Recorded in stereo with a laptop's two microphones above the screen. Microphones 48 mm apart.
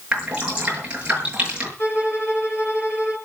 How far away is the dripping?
About 6.5 m.